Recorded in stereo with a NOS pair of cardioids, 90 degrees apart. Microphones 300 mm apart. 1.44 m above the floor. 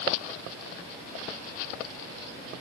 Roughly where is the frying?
No frying in this recording.